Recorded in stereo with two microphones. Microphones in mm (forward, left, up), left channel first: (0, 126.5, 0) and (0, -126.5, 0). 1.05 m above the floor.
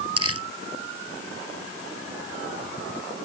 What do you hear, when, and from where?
0.2 s crumpling: 65° right (ahead or behind)